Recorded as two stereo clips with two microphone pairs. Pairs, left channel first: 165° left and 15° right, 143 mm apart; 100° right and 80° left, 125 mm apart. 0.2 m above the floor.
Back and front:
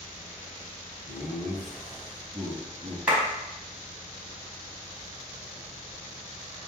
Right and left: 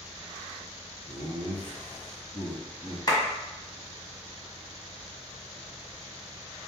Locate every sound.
1.1 s laughter: 110° right, 1.7 m; by 3.0 s 25° left, 1.0 m
3.1 s a clap: 85° right, 1.4 m